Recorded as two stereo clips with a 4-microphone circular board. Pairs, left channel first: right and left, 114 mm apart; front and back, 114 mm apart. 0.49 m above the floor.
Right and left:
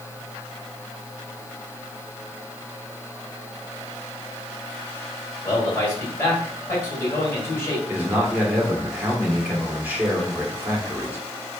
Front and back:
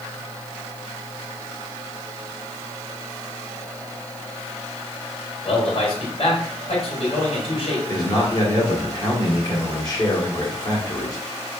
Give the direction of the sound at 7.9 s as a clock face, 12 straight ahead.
11 o'clock.